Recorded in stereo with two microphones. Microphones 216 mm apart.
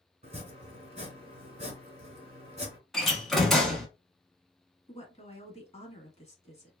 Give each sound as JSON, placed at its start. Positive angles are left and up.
{"t": 0.2, "sound": "chopping", "side_deg": -30, "distance_m": 1.3}
{"t": 2.9, "sound": "a door slam", "side_deg": 0, "distance_m": 1.0}
{"t": 4.9, "sound": "a woman speaking", "side_deg": 30, "distance_m": 1.1}